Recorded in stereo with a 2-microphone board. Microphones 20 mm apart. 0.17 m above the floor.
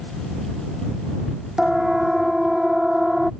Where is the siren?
30° right (ahead or behind).